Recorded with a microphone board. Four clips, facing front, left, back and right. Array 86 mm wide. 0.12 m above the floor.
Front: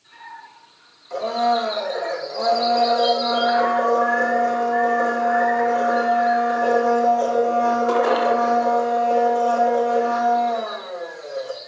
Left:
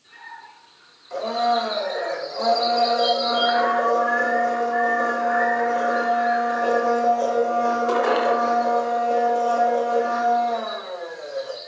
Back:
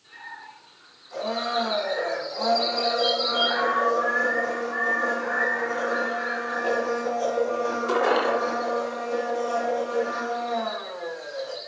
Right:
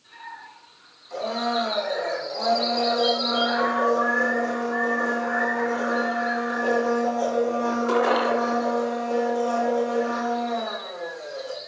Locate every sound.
1.1 s a blender: 15° left, 6 m